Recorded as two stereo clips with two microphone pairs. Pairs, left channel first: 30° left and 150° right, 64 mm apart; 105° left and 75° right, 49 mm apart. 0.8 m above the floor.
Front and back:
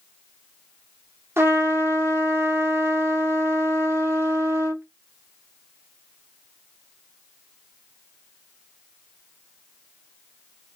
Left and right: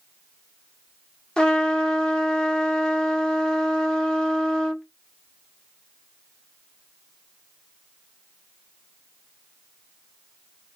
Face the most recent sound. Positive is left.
turn(degrees=170)